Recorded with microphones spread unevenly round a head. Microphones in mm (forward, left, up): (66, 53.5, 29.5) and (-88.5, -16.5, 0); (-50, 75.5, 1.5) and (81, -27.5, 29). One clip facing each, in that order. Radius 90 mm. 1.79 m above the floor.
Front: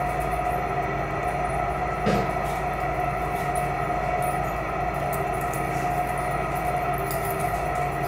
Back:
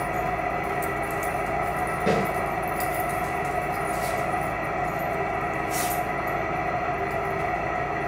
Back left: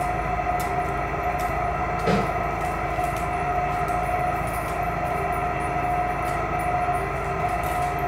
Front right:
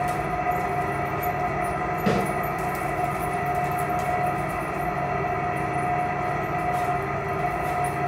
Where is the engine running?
75° right, 4.5 m.